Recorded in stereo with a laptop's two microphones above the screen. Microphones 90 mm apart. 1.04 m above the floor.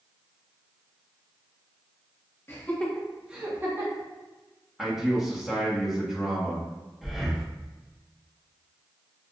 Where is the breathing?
Centre (ahead or behind), 0.8 m.